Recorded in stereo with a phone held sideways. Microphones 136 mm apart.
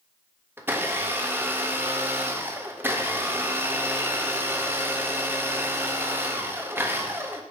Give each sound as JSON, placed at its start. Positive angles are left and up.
{"t": 0.6, "sound": "a blender", "side_deg": -15, "distance_m": 0.7}